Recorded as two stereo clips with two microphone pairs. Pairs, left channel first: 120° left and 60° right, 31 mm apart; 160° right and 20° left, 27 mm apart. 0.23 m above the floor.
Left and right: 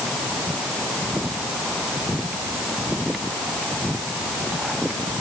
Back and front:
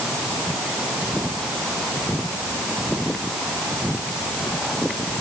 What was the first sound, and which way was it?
Only background noise.